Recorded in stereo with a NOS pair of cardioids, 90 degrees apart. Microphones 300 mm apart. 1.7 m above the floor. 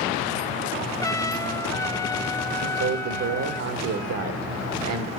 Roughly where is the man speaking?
Ahead right.